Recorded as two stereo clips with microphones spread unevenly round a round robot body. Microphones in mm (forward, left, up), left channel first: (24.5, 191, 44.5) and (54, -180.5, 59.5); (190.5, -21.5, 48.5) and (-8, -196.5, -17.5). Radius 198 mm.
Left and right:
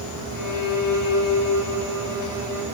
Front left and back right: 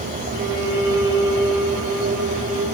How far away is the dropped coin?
No dropped coin in this recording.